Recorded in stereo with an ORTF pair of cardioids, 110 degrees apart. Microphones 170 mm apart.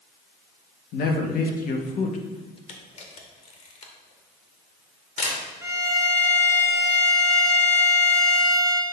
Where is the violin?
15° right, 1.7 m.